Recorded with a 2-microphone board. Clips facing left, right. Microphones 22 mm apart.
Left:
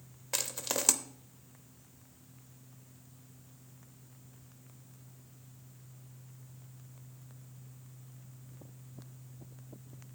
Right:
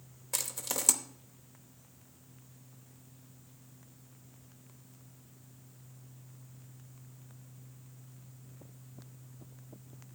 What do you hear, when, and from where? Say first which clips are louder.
0.3 s crushing: left 2 dB; 20° left (ahead or behind), 0.9 m